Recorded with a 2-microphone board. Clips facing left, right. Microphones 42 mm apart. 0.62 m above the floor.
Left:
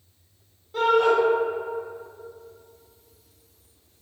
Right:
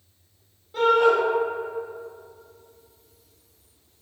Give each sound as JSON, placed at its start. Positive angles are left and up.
{"t": 0.7, "sound": "a shout", "side_deg": 0, "distance_m": 0.9}